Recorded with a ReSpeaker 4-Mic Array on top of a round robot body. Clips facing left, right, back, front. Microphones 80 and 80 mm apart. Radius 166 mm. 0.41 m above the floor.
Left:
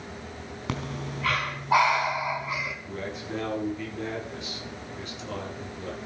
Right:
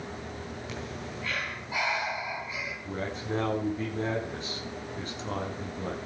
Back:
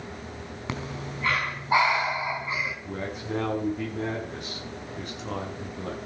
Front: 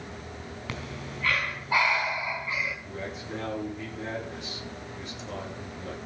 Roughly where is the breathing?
Behind left.